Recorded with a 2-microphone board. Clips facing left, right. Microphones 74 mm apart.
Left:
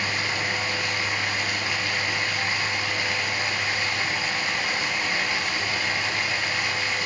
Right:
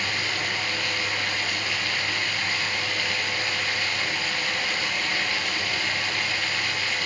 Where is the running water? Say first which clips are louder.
Left 1 dB; 20° left (ahead or behind), 2.0 m.